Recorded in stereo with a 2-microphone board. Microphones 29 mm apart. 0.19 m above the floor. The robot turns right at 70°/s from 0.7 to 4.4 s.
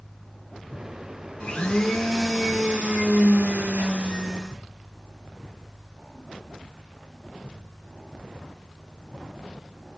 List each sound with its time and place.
1.4 s a blender: 130° left, 0.6 m; by 4.6 s 20° right, 0.6 m